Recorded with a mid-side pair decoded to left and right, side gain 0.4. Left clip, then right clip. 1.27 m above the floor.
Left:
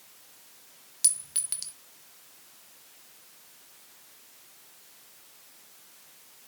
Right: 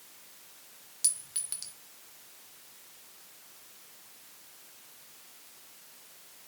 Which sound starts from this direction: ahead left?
A clink, at 1.0 s.